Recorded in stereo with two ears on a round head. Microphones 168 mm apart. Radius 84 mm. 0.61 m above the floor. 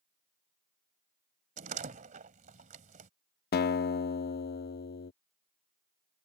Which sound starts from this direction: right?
A door slam, at 1.6 s.